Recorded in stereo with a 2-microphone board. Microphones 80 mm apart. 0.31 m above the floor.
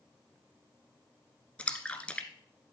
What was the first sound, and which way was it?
A splash, 15° left (ahead or behind).